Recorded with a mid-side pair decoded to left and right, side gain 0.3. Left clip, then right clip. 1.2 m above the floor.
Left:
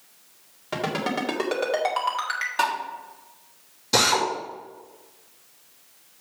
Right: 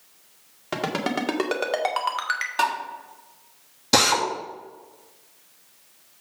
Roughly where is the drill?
Right.